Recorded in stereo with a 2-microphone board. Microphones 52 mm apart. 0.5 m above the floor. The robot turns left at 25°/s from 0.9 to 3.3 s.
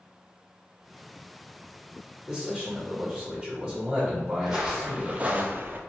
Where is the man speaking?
20° right (ahead or behind), 1.4 m.